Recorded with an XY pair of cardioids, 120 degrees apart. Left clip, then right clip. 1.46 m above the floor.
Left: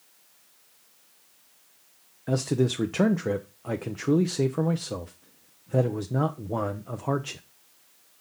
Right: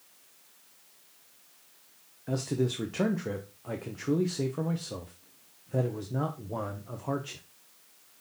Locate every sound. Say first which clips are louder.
2.3 s a man speaking: left 5 dB; 35° left, 0.7 m